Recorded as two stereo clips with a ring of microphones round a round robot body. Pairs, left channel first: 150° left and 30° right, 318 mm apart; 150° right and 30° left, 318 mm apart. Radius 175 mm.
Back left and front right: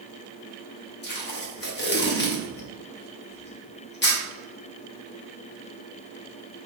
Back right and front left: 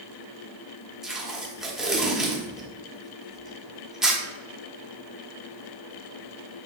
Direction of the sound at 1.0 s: 120° left.